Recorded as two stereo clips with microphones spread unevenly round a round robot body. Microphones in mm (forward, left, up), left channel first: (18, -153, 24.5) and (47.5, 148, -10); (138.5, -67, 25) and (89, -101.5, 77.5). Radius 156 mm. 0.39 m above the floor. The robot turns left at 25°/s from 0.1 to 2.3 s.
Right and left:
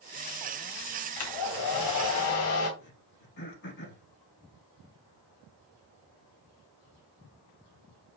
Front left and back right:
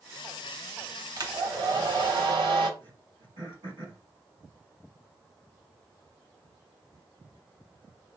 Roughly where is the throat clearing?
Behind right.